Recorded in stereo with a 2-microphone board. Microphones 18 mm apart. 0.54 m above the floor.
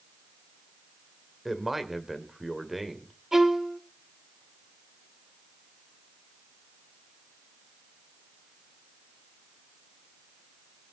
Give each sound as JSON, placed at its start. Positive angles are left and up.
{"t": 1.4, "sound": "a man speaking", "side_deg": -15, "distance_m": 2.0}
{"t": 3.3, "sound": "a violin", "side_deg": -25, "distance_m": 1.3}